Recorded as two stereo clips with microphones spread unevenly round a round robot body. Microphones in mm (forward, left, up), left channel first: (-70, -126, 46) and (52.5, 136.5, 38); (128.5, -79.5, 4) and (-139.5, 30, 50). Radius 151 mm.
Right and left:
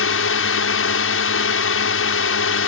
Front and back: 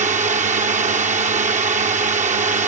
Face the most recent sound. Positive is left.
turn(degrees=-135)